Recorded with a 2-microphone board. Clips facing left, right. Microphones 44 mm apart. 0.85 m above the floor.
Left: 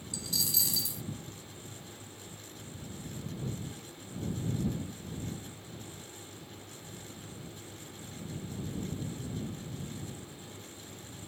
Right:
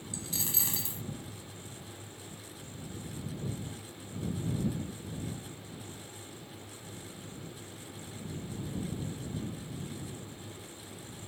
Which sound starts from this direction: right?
A dropped coin, at 0.1 s.